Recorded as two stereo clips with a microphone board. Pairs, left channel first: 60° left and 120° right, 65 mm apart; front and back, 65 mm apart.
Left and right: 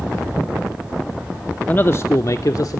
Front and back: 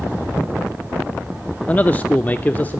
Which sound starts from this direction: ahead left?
A man speaking, at 1.7 s.